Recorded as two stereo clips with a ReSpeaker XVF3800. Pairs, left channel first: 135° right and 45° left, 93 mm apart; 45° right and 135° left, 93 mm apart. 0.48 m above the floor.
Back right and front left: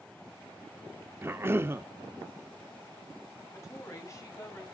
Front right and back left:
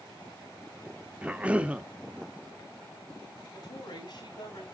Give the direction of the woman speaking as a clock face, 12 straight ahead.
3 o'clock.